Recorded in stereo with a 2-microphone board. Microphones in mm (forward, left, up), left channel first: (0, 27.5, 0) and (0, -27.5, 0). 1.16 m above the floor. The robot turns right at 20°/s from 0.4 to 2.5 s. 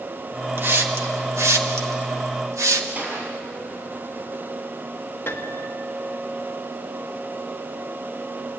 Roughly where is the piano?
Left.